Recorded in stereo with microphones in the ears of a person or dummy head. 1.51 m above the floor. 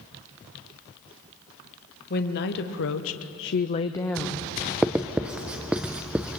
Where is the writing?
5° right (ahead or behind), 0.6 m.